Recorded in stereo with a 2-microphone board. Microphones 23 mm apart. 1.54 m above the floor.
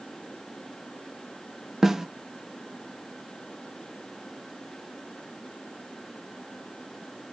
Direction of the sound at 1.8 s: 20° right (ahead or behind).